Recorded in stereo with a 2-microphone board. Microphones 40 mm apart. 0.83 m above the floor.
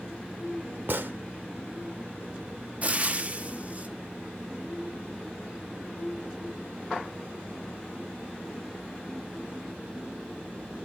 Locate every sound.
0.9 s a gunshot: 55° right (ahead or behind), 0.8 m
2.8 s frying: 35° right (ahead or behind), 0.7 m